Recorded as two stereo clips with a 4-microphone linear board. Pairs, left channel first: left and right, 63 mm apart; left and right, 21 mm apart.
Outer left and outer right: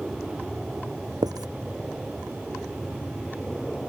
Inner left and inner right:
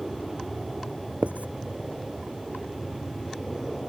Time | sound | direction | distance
0.0 | an aircraft | centre (ahead or behind) | ?
1.2 | writing | 80° right | ?